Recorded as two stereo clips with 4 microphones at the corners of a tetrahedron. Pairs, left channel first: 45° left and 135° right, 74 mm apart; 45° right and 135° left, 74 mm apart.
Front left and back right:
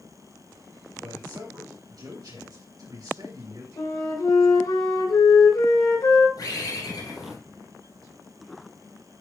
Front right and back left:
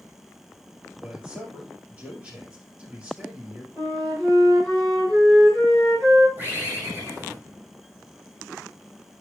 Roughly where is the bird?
Left.